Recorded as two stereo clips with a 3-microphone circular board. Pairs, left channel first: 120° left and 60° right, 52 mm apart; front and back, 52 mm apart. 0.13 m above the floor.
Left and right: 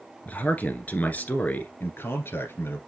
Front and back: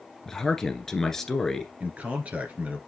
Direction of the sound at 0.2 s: 75° left.